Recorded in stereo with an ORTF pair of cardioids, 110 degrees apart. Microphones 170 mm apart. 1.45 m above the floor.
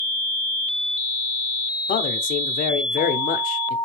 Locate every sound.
1.9 s a man speaking: 60° left, 0.7 m